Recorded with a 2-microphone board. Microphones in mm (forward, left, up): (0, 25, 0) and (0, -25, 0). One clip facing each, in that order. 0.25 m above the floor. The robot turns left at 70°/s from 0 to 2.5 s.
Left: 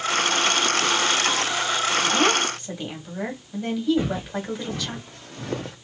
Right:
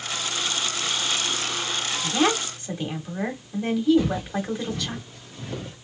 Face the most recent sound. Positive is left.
turn(degrees=80)